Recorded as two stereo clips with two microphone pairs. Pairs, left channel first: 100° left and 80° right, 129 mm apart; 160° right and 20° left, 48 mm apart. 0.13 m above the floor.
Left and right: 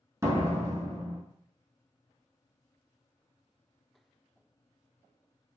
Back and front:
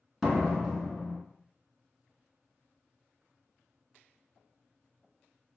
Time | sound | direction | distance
0.2 | a door slam | 60° right | 0.8 m